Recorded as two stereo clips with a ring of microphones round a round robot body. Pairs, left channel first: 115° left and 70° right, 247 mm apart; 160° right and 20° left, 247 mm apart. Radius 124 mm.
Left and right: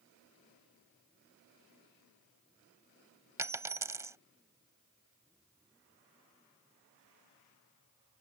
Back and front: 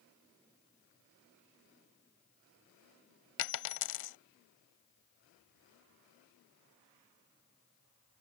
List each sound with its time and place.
3.4 s a dropped coin: 145° right